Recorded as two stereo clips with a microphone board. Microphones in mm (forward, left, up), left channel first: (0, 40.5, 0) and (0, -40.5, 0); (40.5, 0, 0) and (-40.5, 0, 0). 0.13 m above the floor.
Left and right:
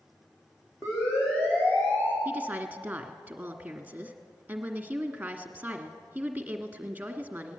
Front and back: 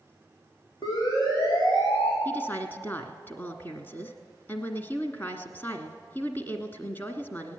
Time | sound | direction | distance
0.8 | a siren | 35° left | 7.5 m
2.2 | a woman speaking | 40° right | 1.4 m